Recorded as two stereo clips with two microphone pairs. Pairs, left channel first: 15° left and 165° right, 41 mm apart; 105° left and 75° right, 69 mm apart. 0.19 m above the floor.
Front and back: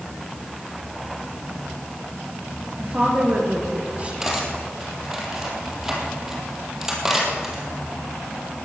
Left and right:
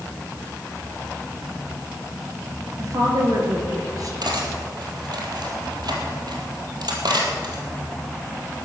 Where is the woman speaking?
105° right, 4 m.